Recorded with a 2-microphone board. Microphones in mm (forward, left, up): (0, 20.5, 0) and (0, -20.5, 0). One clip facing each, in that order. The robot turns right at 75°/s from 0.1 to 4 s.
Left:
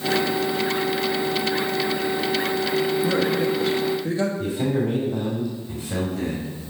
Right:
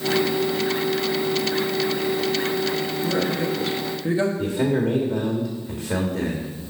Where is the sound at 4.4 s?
60° right (ahead or behind), 1.4 m.